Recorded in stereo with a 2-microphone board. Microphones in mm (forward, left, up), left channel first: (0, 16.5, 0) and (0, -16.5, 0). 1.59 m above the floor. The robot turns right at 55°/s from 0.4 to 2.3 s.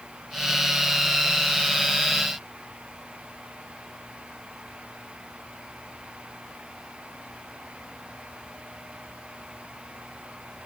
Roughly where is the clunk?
I don't hear a clunk.